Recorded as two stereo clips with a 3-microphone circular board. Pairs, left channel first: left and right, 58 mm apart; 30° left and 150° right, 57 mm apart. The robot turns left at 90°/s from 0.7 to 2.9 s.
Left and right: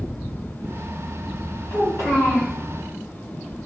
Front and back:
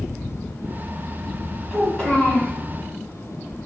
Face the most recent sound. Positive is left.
turn(degrees=20)